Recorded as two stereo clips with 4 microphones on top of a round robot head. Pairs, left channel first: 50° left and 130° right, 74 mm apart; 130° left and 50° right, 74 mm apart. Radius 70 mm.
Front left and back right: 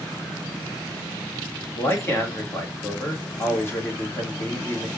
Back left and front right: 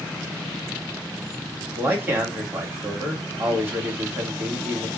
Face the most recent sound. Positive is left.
turn(degrees=5)